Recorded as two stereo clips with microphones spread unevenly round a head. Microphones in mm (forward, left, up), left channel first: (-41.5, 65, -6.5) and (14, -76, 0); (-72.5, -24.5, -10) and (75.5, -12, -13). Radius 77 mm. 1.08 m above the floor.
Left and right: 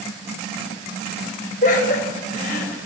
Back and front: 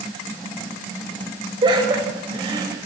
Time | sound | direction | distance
1.6 | laughter | 70° left | 4.5 m